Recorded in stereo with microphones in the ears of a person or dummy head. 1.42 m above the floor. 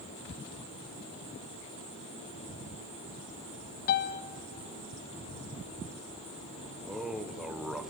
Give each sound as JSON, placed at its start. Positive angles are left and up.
{"t": 3.9, "sound": "a piano", "side_deg": 50, "distance_m": 0.9}
{"t": 6.8, "sound": "a man speaking", "side_deg": 0, "distance_m": 1.1}